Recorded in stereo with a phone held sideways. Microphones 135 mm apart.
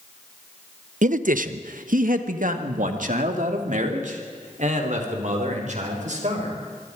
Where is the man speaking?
65° right (ahead or behind), 0.8 m; by 6.6 s 60° right (ahead or behind), 5 m.